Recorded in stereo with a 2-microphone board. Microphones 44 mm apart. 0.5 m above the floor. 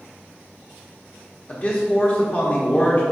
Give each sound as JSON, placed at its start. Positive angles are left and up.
{"t": 1.5, "sound": "a man speaking", "side_deg": 30, "distance_m": 0.9}